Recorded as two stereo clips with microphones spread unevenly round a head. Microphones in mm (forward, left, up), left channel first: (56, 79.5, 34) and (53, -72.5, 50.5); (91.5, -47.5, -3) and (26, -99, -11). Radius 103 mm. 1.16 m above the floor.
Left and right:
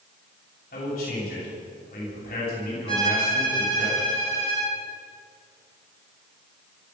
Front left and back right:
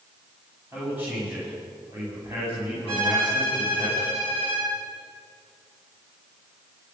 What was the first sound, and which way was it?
A man speaking, 135° left.